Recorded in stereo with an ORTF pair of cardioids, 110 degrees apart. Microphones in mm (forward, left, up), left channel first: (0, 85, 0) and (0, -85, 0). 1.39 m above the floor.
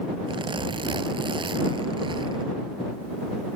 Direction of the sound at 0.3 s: 30° right.